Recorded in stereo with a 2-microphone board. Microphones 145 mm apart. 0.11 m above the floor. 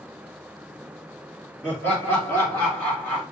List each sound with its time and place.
1.6 s laughter: 15° left (ahead or behind), 2.0 m; by 3.2 s 20° left (ahead or behind), 1.6 m